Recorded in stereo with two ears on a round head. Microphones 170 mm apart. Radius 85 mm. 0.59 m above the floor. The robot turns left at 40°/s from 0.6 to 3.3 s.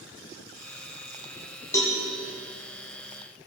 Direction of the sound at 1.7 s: 15° left (ahead or behind).